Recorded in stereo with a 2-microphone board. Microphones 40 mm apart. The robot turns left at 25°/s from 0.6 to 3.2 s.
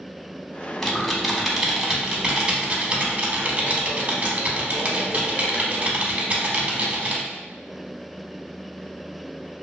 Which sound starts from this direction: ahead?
Typing on a keyboard, at 0.8 s.